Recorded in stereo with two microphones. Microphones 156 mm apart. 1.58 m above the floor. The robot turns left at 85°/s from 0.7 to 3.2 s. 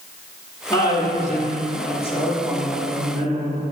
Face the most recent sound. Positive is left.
turn(degrees=-50)